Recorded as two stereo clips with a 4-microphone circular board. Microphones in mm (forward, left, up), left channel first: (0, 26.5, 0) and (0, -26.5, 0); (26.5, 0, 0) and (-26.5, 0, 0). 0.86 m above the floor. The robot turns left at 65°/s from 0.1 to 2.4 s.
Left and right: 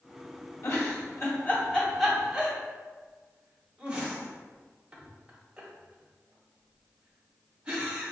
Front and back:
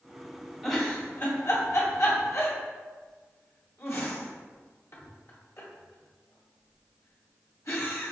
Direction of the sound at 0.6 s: 95° left.